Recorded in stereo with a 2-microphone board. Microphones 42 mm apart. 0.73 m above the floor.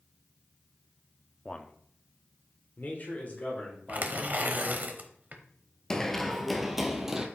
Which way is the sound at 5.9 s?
15° left (ahead or behind).